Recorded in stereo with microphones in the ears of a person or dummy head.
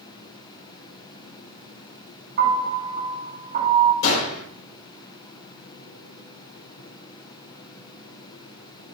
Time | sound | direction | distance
2.4 | a piano | 45° right (ahead or behind) | 4.5 m
4.0 | a gunshot | 80° left | 4 m